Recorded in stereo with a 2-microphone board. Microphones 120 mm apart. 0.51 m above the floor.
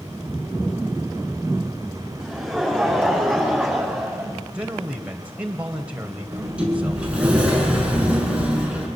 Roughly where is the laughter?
Centre.